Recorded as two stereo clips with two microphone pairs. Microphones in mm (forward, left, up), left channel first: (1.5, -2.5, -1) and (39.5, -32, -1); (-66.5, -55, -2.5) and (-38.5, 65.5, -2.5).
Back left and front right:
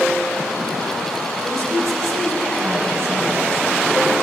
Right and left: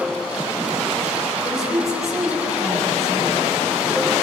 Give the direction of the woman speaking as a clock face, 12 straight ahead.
1 o'clock.